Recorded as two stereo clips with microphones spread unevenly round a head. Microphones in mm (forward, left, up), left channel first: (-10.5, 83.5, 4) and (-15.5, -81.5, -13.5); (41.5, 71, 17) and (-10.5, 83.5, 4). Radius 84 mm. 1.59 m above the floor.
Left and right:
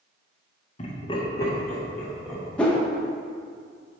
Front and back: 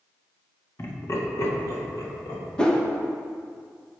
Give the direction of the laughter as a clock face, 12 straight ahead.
11 o'clock.